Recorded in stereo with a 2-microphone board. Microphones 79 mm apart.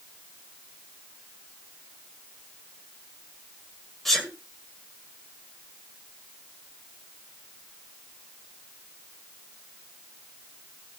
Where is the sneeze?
5° left (ahead or behind), 1.5 m.